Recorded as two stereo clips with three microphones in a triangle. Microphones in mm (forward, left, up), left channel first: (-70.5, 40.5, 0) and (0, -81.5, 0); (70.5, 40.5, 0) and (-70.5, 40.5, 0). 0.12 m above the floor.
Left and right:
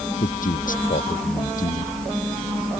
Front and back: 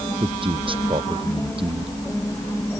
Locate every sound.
0.2 s a man speaking: 130° left